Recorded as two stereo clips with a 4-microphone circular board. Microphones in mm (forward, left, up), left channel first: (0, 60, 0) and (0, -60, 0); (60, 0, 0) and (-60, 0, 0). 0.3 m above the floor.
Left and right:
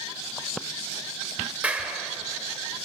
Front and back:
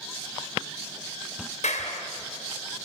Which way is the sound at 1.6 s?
10° right.